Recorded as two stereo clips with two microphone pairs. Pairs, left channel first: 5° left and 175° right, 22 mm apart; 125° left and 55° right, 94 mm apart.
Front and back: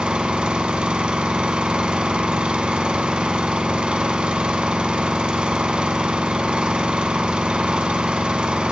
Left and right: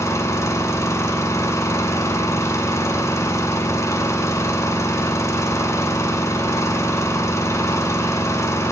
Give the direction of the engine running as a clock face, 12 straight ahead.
6 o'clock.